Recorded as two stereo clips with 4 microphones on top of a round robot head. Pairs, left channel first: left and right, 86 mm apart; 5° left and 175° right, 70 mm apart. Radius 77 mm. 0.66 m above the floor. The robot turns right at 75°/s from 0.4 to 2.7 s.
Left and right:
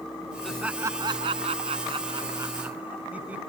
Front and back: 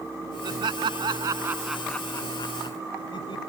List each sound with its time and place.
0.4 s laughter: 175° left; by 3.4 s 15° right